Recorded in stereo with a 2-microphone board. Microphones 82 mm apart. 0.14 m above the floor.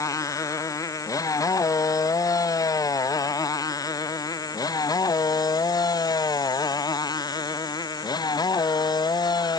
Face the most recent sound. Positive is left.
turn(degrees=55)  # may be behind; listen again after turning